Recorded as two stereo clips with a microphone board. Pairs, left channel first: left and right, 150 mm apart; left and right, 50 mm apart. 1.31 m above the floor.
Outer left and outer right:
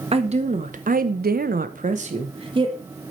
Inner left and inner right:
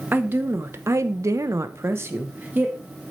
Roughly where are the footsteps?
No footsteps in this recording.